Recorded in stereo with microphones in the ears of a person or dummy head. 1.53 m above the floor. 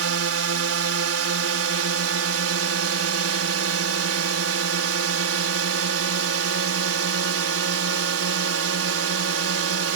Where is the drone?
80° right.